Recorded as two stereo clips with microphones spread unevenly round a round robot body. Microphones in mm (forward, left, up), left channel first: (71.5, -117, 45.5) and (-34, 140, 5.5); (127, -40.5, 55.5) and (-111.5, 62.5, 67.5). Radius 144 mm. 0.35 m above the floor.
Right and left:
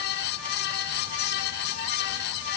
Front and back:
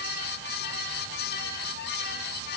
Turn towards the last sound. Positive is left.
No sound to turn to.